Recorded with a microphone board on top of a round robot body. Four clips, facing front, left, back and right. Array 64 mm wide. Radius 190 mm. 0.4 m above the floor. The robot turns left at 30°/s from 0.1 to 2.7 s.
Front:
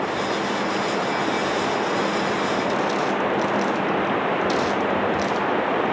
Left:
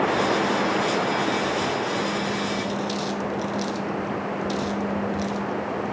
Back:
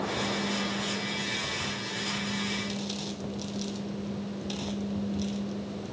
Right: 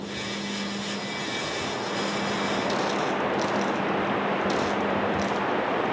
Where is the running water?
60° left; by 5.9 s 15° right.